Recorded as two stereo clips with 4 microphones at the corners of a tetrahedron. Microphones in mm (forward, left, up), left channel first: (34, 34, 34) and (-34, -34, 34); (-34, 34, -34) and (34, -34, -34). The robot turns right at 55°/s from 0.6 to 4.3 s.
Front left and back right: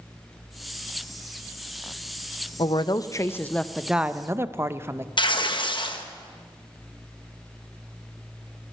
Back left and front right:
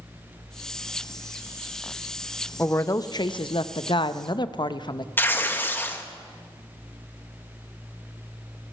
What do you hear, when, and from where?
2.6 s a woman speaking: 70° left, 0.5 m; by 5.1 s 165° left, 0.5 m
5.2 s tearing paper: 70° left, 1.0 m